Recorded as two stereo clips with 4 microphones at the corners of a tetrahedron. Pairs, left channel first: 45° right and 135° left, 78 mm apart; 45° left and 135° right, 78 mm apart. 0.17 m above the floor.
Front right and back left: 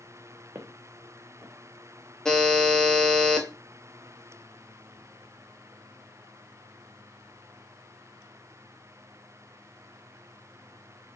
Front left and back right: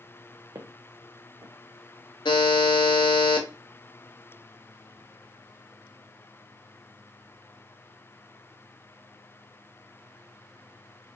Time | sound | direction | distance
0.6 | footsteps | 170° right | 0.6 m
2.2 | a buzzer | 40° left | 0.6 m